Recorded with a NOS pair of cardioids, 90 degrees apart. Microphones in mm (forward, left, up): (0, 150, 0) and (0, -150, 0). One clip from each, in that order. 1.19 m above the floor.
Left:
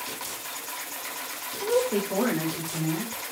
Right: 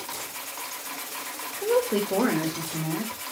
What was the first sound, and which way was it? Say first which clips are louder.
A woman speaking: right 1 dB; 20° right.